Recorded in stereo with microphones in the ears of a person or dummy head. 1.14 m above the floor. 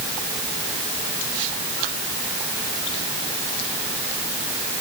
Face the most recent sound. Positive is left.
No sound to turn to.